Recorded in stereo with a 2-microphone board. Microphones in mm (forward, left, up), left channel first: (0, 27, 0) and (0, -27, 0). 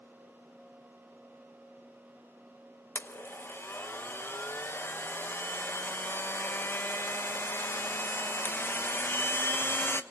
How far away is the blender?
About 1.2 m.